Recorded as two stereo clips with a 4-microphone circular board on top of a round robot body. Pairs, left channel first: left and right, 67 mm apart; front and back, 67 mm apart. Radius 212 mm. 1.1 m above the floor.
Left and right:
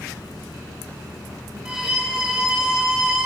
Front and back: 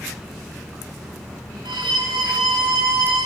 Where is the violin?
165° right, 1.3 m.